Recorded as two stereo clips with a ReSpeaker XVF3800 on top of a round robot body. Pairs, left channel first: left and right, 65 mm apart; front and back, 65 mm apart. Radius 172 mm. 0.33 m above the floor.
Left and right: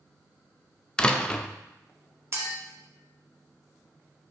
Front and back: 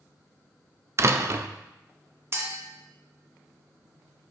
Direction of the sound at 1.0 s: 160° left.